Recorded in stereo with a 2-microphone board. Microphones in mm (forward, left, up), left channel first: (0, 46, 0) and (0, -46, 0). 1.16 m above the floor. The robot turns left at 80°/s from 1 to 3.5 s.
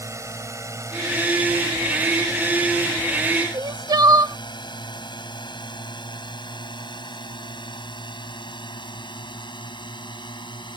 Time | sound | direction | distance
0.0 | a drone | 30° right (ahead or behind) | ?
3.5 | crying | 45° right (ahead or behind) | ?